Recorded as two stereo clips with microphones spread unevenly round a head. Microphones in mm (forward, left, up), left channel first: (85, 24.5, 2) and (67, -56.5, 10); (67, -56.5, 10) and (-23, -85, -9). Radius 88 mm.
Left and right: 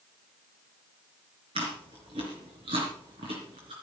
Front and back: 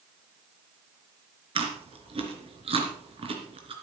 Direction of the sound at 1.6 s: 140° right.